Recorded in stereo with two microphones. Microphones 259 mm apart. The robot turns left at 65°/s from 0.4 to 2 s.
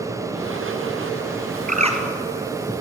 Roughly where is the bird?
Right.